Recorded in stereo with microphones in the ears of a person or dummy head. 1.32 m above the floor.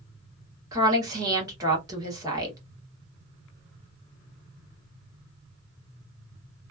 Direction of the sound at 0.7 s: 20° right (ahead or behind).